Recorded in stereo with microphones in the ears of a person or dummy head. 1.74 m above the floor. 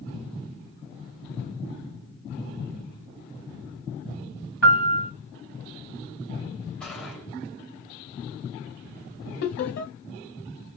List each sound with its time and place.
4.6 s a piano: 10° right (ahead or behind), 2 m
6.8 s a gunshot: 10° left (ahead or behind), 1.7 m
9.4 s laughter: 55° left (ahead or behind), 0.8 m